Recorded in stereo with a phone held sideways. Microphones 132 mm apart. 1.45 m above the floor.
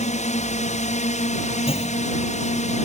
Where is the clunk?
45° left (ahead or behind).